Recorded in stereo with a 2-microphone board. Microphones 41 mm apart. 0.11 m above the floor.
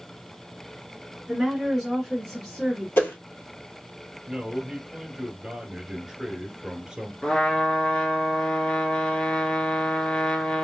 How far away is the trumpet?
About 0.6 m.